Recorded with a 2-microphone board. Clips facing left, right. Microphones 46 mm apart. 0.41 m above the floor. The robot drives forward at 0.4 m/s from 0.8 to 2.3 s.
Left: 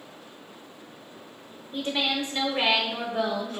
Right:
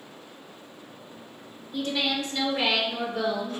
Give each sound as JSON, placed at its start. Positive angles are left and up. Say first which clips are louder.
{"t": 1.7, "sound": "a woman speaking", "louder": "even", "side_deg": 25, "distance_m": 0.8}